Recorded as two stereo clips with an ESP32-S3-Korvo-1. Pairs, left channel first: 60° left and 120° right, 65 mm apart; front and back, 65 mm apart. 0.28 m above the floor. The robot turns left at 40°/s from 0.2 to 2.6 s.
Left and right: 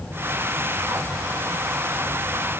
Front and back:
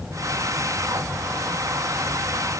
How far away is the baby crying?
No baby crying in this recording.